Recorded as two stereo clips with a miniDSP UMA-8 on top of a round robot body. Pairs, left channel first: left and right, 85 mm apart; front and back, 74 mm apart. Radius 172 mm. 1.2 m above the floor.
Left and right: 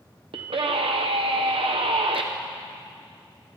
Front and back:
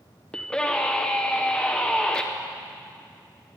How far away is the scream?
About 0.8 m.